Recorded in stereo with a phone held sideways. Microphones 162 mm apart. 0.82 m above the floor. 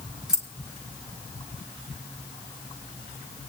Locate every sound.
0.3 s keys jangling: 5° right (ahead or behind), 1.7 m